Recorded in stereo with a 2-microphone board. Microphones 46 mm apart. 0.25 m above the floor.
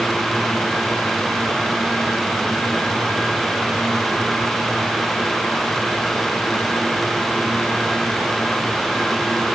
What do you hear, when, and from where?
Only background noise.